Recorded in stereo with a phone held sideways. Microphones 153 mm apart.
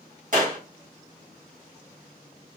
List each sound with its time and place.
0.3 s a clap: 60° right (ahead or behind), 1.7 m